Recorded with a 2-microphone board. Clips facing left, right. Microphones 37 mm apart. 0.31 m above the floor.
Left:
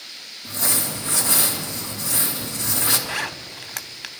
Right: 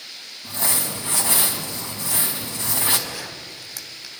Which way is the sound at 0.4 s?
35° right (ahead or behind).